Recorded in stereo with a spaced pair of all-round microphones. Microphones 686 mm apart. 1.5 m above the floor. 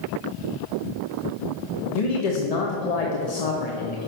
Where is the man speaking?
65° left (ahead or behind), 0.9 m.